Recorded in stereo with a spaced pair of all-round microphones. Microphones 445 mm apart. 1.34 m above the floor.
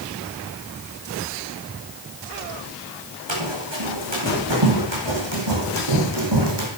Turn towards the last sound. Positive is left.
turn(degrees=-60)  # may be behind; listen again after turning